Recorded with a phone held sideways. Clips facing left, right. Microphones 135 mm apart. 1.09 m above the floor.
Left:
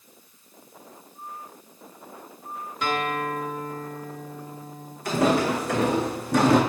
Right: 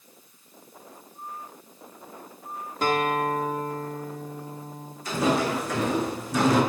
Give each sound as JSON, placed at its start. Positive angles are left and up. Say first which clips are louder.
{"t": 2.8, "sound": "a guitar", "louder": "right 3 dB", "side_deg": -40, "distance_m": 1.3}
{"t": 5.0, "sound": "footsteps", "louder": "left 3 dB", "side_deg": 65, "distance_m": 3.0}